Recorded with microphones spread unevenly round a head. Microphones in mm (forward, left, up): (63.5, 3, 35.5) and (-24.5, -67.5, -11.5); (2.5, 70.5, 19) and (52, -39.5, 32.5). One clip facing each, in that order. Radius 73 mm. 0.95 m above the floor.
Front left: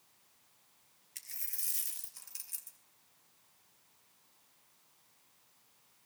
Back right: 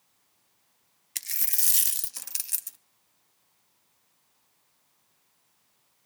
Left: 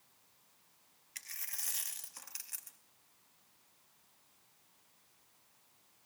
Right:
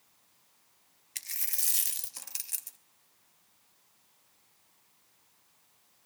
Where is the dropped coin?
130° right, 0.5 m.